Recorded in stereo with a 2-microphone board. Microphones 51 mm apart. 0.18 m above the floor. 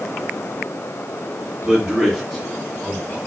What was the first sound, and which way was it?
A man speaking, 20° right (ahead or behind).